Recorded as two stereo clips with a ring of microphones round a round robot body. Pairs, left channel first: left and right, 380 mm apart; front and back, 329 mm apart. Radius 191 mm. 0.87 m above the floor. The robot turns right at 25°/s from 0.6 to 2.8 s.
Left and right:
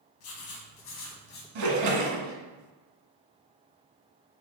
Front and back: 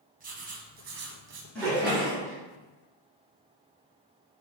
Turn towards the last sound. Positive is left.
turn(degrees=-55)